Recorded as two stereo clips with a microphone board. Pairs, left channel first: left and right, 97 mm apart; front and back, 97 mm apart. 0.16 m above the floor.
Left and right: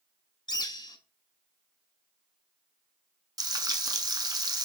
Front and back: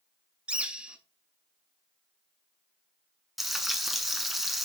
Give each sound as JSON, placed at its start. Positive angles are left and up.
{"t": 0.5, "sound": "a bird", "azimuth_deg": 105, "distance_m": 0.5}
{"t": 3.4, "sound": "frying", "azimuth_deg": -95, "distance_m": 0.6}